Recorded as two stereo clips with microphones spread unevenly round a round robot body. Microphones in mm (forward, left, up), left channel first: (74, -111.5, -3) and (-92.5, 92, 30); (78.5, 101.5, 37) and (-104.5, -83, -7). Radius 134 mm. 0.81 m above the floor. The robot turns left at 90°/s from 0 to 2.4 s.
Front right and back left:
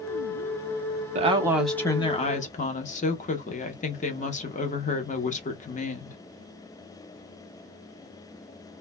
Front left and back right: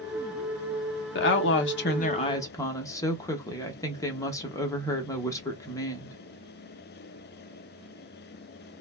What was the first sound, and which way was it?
A woman speaking, 75° left.